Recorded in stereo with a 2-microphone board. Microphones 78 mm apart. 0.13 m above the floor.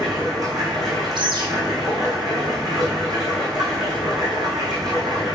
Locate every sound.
0.0 s running water: 50° right (ahead or behind), 3.5 m
1.1 s a bird: 65° right (ahead or behind), 3.5 m